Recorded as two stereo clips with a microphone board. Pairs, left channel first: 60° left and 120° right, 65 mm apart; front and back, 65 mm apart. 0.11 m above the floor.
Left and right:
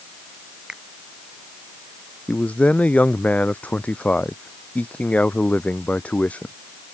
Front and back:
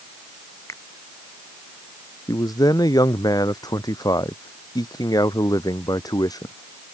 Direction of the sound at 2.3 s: 5° right.